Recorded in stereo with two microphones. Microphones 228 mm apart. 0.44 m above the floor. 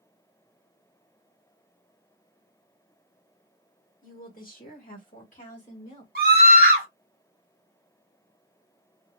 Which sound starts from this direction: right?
A scream, at 6.2 s.